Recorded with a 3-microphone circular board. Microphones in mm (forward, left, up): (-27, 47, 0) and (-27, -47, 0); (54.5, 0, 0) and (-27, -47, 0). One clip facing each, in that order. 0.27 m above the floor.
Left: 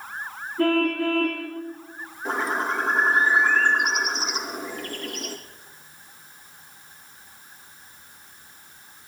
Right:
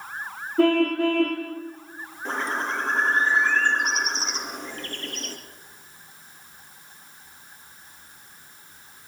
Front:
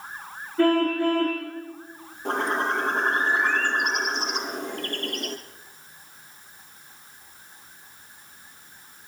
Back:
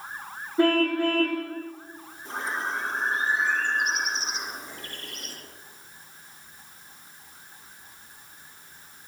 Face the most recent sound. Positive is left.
turn(degrees=5)